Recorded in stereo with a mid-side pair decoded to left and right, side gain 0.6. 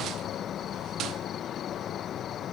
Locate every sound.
0.0 s an insect: 50° left, 0.9 m